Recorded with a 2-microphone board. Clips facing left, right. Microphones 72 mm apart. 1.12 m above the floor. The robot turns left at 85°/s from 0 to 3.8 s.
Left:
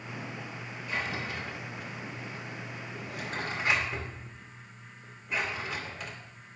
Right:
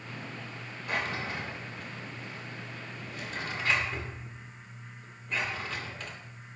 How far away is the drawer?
About 2 m.